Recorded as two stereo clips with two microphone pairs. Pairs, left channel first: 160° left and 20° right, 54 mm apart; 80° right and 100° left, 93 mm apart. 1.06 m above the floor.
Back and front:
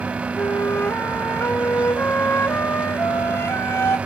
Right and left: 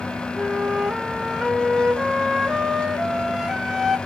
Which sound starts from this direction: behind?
A flute, at 0.4 s.